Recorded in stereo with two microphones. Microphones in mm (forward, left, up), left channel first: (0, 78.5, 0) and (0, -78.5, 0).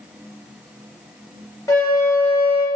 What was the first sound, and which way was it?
A flute, 20° left (ahead or behind).